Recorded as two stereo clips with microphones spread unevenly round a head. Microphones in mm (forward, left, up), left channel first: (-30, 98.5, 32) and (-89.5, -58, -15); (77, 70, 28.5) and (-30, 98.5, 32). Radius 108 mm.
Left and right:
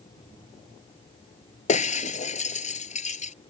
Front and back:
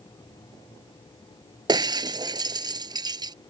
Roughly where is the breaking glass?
Behind left.